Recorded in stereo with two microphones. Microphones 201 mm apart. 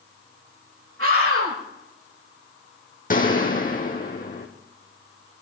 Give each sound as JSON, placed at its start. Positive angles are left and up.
{"t": 1.0, "sound": "a scream", "side_deg": -80, "distance_m": 8.0}
{"t": 3.1, "sound": "a gunshot", "side_deg": 40, "distance_m": 2.0}